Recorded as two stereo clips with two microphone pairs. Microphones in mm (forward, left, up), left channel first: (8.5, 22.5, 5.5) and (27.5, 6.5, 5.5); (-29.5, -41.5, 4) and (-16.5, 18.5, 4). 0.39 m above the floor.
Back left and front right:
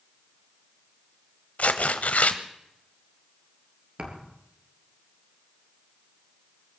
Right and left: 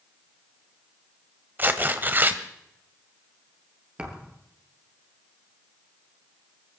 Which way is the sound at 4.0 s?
5° left.